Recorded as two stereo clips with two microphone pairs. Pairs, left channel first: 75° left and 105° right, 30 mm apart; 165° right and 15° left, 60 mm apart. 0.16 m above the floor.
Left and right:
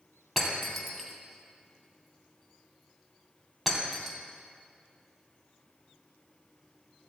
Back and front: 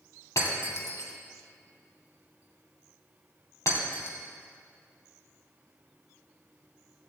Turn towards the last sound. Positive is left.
turn(degrees=165)